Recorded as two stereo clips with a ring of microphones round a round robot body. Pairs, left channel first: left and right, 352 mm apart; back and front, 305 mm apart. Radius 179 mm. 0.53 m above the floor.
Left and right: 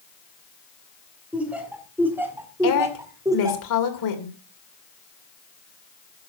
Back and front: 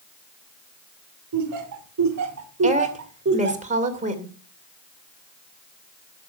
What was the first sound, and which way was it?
Laughter, 5° right.